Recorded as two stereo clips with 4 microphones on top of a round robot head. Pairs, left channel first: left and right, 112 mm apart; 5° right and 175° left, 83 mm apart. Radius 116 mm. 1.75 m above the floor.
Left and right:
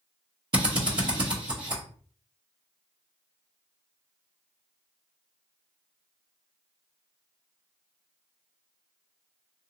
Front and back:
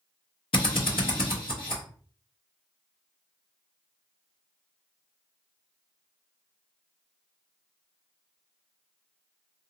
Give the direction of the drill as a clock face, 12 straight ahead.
1 o'clock.